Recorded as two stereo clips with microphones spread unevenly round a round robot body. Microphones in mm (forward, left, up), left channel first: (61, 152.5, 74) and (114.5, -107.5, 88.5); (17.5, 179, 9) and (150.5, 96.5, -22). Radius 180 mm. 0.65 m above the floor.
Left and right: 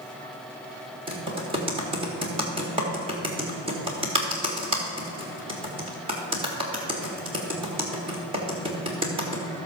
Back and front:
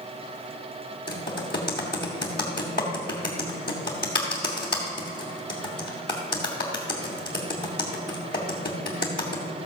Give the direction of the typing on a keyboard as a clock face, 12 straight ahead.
5 o'clock.